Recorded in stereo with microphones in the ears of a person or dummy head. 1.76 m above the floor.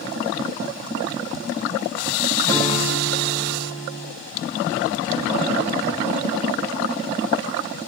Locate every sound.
2.5 s a guitar: 25° left (ahead or behind), 3.5 m